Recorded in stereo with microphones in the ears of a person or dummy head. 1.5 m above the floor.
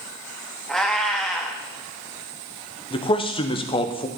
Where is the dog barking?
No dog barking in this recording.